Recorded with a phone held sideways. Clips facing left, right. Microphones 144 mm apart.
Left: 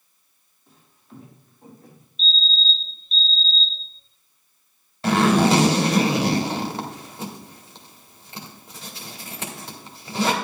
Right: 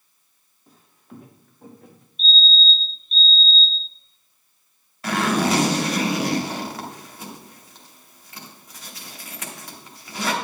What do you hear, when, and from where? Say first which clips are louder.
0.7 s footsteps: right 2 dB; 40° right (ahead or behind), 1.9 m; by 2.1 s 65° right (ahead or behind), 2.5 m
2.2 s a fire alarm: right 3 dB; 10° right (ahead or behind), 1.6 m
5.0 s a zipper: left 4 dB; 30° left (ahead or behind), 1.8 m